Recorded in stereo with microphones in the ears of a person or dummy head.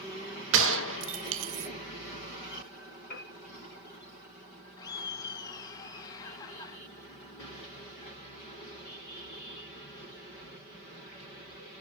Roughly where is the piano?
Left.